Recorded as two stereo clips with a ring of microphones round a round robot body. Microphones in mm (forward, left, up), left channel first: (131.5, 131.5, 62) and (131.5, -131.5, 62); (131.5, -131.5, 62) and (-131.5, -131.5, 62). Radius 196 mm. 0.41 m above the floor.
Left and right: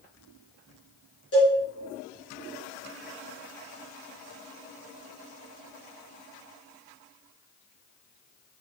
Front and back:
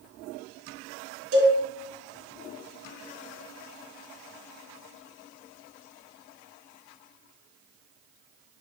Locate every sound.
1.3 s a cowbell: 170° left, 3 m